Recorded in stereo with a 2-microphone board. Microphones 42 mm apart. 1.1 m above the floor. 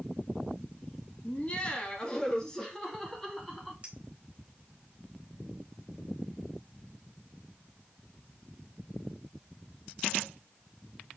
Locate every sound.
1.2 s laughter: 30° left (ahead or behind), 2 m; by 3.7 s 5° left (ahead or behind), 3 m
3.8 s a clink: 25° right (ahead or behind), 3.5 m